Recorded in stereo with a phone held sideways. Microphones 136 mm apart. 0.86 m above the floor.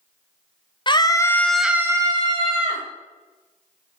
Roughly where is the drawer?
I don't hear a drawer.